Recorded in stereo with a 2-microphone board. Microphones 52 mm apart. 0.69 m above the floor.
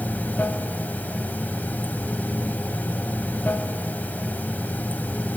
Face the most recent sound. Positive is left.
turn(degrees=35)  # may be behind; listen again after turning